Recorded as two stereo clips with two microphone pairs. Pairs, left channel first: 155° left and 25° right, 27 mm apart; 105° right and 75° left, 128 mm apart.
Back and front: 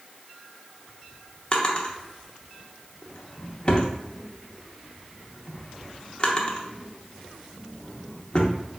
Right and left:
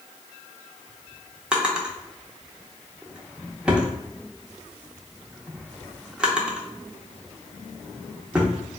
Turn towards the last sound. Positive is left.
turn(degrees=155)